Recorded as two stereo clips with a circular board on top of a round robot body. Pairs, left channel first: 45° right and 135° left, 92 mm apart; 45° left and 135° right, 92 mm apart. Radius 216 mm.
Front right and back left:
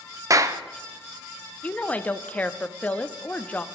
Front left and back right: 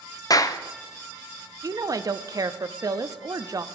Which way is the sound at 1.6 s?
110° right.